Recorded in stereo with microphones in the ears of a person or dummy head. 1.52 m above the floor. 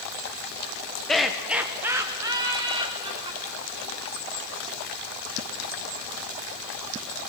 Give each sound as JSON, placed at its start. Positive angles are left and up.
{"t": 1.1, "sound": "laughter", "side_deg": 5, "distance_m": 1.0}